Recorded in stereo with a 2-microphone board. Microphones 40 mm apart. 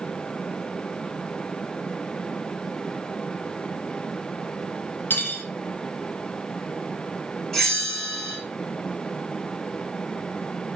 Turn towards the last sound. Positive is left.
turn(degrees=5)  # may be behind; listen again after turning